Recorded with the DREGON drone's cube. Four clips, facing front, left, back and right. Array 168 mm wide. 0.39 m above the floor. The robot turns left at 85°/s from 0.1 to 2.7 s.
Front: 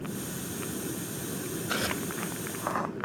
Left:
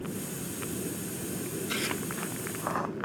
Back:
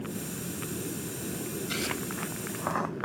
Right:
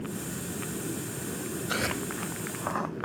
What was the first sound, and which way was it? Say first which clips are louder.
Tearing paper: right 5 dB, front 4 dB; 45° right.